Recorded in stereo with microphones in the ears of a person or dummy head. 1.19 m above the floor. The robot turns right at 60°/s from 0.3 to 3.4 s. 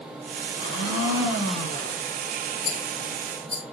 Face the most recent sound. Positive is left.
turn(degrees=5)  # may be behind; listen again after turning